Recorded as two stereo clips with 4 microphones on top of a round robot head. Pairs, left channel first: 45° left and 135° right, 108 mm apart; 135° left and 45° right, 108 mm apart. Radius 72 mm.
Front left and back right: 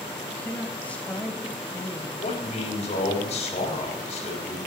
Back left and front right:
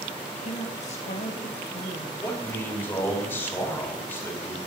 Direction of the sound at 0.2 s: 120° left.